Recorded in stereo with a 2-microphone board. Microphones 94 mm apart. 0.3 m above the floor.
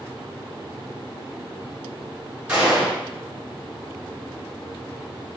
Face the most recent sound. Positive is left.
turn(degrees=-15)  # may be behind; listen again after turning